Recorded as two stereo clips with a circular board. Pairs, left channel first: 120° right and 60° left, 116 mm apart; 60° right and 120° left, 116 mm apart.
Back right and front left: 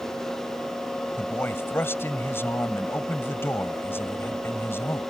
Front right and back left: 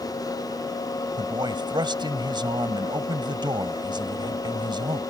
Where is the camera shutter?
I don't hear a camera shutter.